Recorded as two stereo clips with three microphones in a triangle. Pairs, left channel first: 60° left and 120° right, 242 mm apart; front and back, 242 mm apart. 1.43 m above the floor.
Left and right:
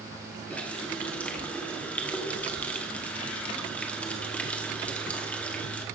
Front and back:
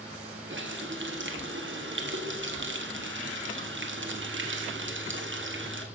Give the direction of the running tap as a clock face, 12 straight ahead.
7 o'clock.